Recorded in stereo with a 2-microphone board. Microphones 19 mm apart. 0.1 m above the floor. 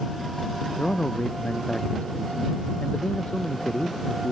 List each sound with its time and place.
0.8 s a man speaking: 80° left